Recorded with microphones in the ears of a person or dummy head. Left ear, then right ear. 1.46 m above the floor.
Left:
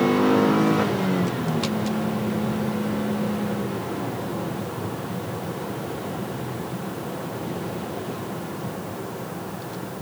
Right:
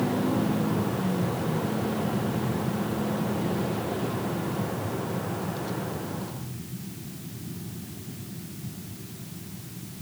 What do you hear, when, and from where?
Only background noise.